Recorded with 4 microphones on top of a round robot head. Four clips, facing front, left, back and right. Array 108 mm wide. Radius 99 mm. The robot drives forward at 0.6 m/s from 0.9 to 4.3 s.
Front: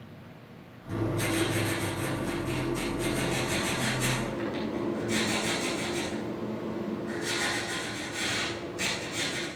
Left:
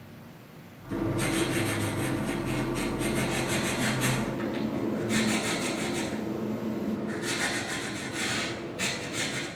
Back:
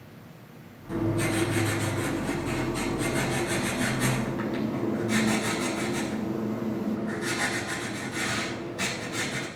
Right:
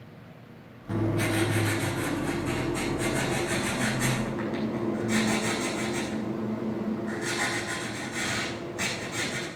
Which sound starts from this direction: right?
Writing, at 0.9 s.